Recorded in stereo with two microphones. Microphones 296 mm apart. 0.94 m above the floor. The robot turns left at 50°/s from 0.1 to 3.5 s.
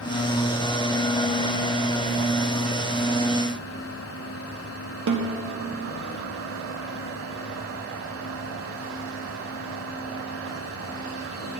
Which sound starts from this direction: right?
A snare drum, at 5.1 s.